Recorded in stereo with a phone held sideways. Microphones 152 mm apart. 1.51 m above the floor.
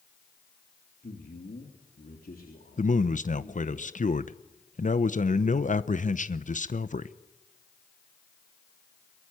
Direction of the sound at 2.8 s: 60° left (ahead or behind).